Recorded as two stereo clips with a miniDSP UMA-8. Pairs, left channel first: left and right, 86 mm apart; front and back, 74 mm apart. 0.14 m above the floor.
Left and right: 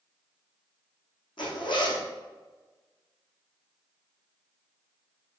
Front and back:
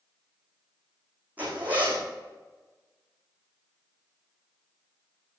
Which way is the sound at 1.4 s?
115° left.